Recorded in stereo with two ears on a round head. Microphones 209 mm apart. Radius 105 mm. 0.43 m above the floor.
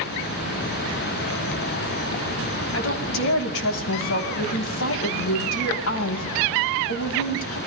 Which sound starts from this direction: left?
A woman speaking, at 2.7 s.